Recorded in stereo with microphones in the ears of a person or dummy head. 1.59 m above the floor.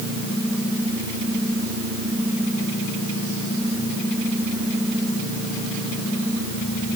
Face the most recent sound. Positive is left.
No sound to turn to.